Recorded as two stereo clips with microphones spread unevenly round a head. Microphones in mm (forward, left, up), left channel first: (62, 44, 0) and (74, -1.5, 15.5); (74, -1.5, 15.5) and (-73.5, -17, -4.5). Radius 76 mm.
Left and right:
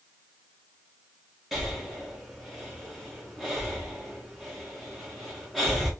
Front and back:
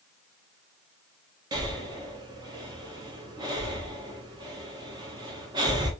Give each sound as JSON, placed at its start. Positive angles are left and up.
{"t": 1.5, "sound": "breathing", "azimuth_deg": 165, "distance_m": 0.7}